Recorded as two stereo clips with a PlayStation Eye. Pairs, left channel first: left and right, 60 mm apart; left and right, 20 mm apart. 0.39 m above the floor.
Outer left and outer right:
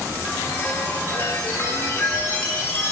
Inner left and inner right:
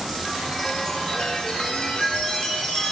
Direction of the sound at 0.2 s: 30° left (ahead or behind).